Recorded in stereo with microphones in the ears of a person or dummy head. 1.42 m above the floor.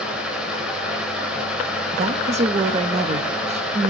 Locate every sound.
0.0 s a fan: 5° right (ahead or behind), 1.6 m
1.9 s a woman speaking: 35° right (ahead or behind), 0.7 m